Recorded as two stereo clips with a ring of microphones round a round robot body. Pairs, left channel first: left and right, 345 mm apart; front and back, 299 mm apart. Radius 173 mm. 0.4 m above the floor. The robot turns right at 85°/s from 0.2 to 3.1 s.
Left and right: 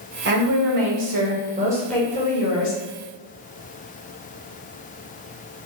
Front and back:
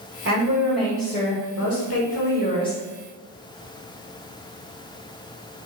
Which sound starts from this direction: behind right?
A woman speaking, at 0.2 s.